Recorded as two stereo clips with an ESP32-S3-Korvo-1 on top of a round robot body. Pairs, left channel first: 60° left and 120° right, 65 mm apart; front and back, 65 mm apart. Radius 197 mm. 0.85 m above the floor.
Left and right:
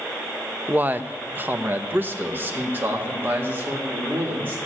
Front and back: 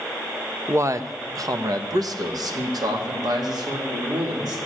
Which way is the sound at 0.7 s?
170° right.